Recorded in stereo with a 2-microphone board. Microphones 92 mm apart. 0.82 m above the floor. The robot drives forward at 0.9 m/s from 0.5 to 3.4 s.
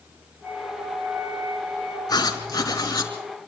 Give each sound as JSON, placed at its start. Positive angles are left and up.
{"t": 0.4, "sound": "a flute", "side_deg": -40, "distance_m": 4.5}
{"t": 2.1, "sound": "writing", "side_deg": 45, "distance_m": 4.0}